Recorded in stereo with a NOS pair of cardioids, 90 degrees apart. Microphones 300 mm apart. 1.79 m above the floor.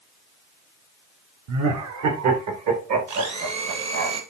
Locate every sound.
1.5 s laughter: 65° right, 1.9 m; by 4.1 s 60° right, 4 m
3.1 s a blender: 60° right, 2.5 m